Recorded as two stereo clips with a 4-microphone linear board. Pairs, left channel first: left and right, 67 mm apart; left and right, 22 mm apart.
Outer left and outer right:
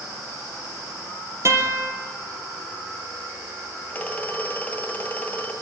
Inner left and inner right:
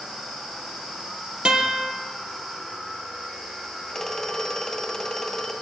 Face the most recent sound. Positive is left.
turn(degrees=20)  # may be behind; listen again after turning